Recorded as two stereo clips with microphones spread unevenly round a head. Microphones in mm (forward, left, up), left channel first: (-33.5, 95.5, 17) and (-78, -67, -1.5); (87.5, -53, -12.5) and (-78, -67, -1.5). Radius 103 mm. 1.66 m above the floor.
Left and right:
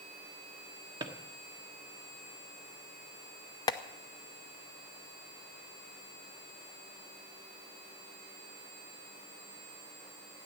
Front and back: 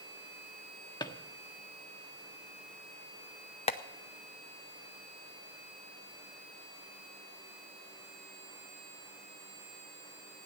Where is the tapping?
35° left, 0.6 m.